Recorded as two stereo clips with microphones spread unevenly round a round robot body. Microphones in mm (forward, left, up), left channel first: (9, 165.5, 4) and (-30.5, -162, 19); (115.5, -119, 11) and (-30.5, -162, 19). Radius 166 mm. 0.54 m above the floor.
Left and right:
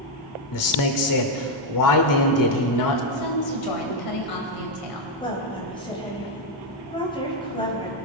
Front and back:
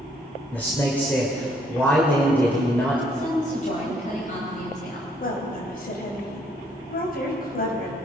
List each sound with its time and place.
0.5 s a man speaking: 95° left, 1.8 m
3.1 s a woman speaking: 70° left, 3 m
5.2 s a woman speaking: 10° left, 3.5 m